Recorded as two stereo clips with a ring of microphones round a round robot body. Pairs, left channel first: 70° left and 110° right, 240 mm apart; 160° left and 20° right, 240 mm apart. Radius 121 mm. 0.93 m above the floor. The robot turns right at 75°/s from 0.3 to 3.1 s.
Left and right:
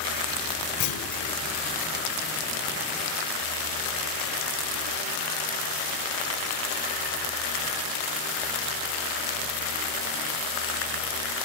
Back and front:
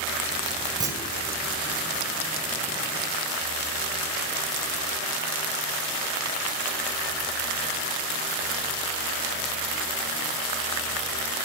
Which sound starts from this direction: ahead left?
A clunk, at 0.8 s.